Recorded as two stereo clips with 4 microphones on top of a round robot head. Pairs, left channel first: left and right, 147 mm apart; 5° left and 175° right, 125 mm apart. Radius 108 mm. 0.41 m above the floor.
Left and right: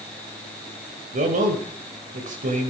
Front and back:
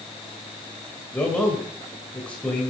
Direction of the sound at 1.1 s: 75° right.